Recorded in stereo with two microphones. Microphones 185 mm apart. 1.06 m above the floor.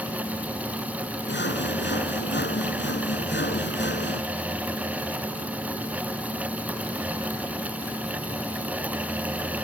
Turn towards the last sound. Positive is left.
turn(degrees=80)